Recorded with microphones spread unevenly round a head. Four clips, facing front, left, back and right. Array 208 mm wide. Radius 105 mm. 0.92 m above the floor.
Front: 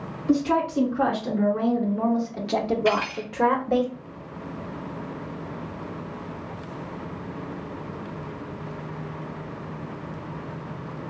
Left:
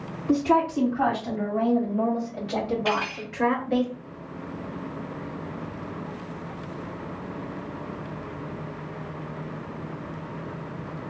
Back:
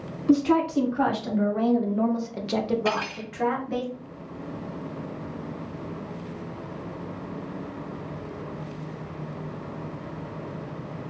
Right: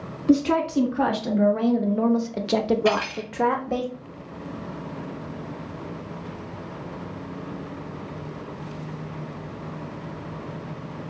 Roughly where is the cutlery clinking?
Behind.